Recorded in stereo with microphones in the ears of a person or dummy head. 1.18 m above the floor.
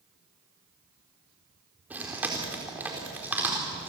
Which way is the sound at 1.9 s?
5° right (ahead or behind).